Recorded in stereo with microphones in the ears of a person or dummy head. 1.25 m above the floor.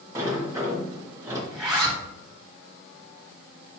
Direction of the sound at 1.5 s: 5° right (ahead or behind).